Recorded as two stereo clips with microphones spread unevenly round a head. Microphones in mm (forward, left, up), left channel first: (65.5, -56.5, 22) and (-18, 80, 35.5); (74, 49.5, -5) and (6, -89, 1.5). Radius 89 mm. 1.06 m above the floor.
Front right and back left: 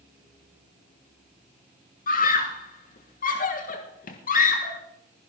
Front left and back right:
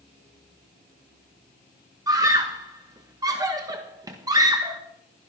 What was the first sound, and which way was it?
A scream, 50° right.